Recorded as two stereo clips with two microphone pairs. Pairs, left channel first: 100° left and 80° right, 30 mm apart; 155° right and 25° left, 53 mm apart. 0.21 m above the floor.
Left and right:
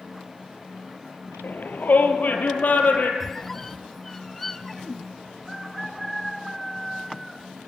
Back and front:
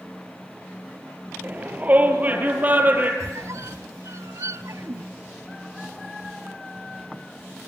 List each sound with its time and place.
1.4 s a shout: 85° left, 3.5 m; by 3.1 s 80° left, 5.5 m
3.2 s a squeak: 20° left, 0.6 m